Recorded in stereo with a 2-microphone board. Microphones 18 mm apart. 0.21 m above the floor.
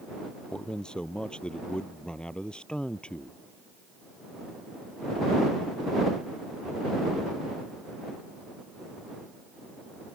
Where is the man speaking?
50° left (ahead or behind); by 3.4 s 60° left (ahead or behind).